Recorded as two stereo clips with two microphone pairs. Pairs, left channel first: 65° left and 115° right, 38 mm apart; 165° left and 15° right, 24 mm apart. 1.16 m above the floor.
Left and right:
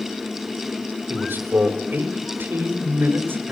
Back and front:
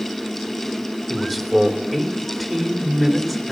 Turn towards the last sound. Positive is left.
turn(degrees=-115)